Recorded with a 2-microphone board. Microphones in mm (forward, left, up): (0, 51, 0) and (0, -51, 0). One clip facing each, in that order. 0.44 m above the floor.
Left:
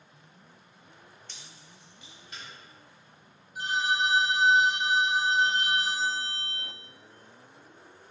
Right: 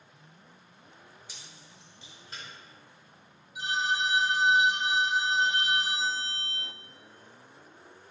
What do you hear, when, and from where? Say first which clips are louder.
1.3 s keys jangling: even; 10° right (ahead or behind), 0.6 m; by 2.4 s 35° right (ahead or behind), 1.5 m
3.5 s a phone ringing: left 2 dB; 45° left (ahead or behind), 1.0 m